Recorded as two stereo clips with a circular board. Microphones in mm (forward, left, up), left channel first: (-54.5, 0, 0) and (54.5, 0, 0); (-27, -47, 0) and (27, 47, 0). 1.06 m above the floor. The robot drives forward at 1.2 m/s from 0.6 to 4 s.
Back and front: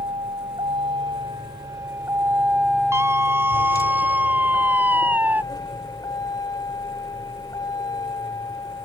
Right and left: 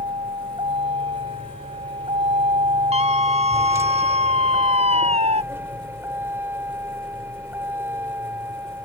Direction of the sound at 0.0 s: 30° left.